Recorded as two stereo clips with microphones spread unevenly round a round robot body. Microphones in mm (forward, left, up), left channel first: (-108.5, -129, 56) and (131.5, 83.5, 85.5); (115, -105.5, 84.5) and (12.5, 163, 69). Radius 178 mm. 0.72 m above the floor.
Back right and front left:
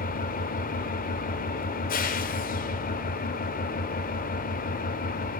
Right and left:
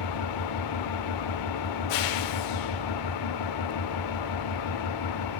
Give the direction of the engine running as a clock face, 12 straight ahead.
2 o'clock.